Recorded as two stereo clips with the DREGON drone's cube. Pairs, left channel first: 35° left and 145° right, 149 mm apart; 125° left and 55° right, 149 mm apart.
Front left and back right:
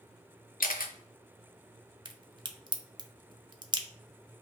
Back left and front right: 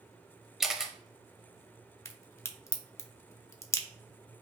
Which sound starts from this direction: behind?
A crack, at 2.0 s.